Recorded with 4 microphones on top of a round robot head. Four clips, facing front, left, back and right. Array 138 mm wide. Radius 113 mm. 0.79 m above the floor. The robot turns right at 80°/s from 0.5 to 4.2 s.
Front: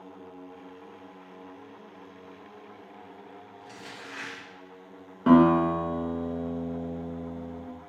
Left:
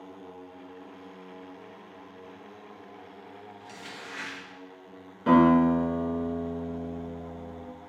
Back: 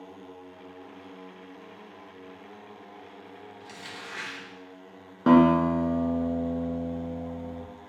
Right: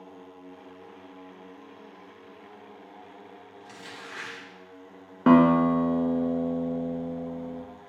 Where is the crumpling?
165° left, 2.5 m; by 4.4 s 145° right, 2.5 m.